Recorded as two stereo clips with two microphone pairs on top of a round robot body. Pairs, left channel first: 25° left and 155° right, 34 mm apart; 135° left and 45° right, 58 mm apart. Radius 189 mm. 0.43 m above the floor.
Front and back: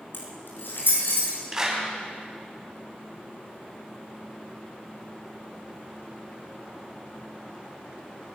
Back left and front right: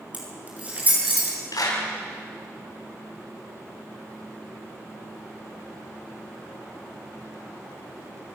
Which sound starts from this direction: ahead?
Keys jangling, at 0.1 s.